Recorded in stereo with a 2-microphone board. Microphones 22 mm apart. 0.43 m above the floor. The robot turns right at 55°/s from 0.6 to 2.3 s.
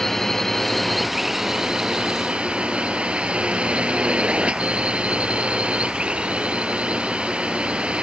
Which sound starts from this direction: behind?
A drone, at 0.0 s.